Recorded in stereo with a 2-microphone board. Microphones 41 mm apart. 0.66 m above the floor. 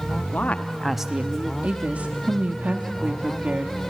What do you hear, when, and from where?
0.3 s a woman speaking: 45° left (ahead or behind), 0.8 m; by 1.5 s 45° right (ahead or behind), 0.8 m
1.6 s a woman speaking: 40° right (ahead or behind), 1.1 m